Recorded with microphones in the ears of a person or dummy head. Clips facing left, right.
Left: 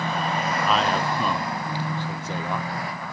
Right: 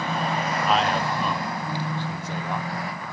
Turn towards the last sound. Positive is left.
turn(degrees=65)  # may be behind; listen again after turning